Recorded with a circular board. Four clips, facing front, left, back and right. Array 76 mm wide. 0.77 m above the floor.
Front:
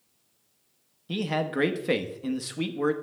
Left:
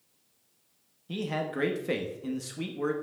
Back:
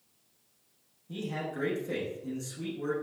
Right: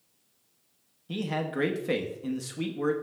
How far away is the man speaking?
About 0.9 m.